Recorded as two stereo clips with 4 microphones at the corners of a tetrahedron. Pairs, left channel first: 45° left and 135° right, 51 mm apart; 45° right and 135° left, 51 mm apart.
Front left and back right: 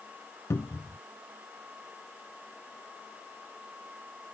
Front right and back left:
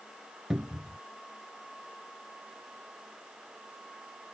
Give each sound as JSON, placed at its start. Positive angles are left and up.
{"t": 0.5, "sound": "a cupboard door", "azimuth_deg": 55}